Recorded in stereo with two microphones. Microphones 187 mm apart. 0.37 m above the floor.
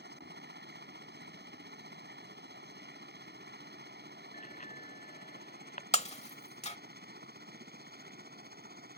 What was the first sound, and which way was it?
A helicopter, 65° right (ahead or behind).